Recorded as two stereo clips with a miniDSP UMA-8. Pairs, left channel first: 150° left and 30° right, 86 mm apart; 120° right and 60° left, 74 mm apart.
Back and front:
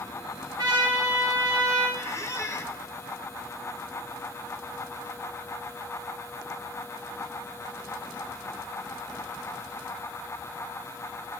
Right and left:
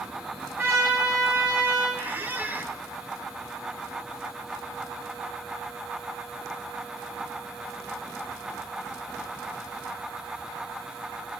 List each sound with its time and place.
0.6 s a trumpet: 10° left, 4 m
2.0 s a squeak: 115° left, 0.6 m